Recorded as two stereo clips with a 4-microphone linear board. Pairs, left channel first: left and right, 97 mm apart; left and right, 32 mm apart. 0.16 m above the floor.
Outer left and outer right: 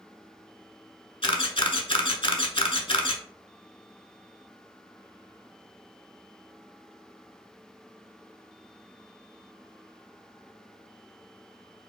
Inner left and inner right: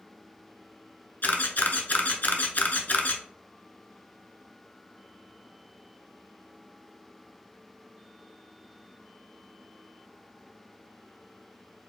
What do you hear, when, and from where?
1.2 s a camera shutter: 60° left (ahead or behind), 0.5 m